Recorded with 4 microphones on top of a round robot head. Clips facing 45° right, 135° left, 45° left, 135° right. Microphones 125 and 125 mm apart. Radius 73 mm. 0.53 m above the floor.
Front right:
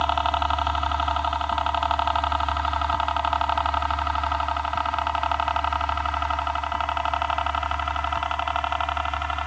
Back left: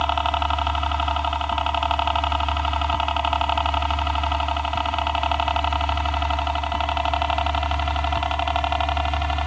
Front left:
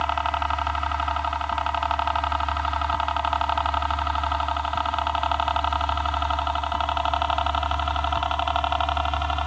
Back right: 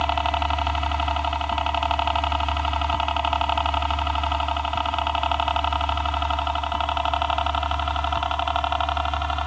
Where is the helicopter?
150° right; by 9.5 s 135° left.